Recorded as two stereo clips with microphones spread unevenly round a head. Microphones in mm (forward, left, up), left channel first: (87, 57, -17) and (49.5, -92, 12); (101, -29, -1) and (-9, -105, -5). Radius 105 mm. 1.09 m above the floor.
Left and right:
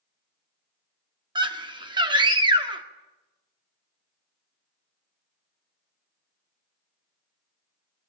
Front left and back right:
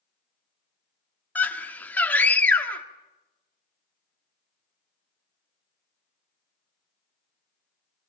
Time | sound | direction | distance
1.4 | a scream | 45° right | 1.9 m